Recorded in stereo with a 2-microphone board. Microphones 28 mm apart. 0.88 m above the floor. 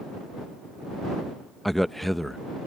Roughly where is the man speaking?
Centre.